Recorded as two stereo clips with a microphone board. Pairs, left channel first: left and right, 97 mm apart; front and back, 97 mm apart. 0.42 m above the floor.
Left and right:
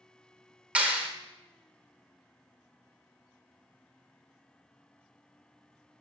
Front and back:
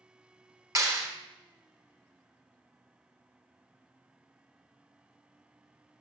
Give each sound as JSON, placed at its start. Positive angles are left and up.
{"t": 0.8, "sound": "a clap", "azimuth_deg": -155, "distance_m": 1.2}